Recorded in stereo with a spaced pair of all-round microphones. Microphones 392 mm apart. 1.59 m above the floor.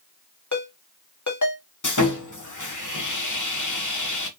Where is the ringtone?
45° left (ahead or behind), 1.9 m.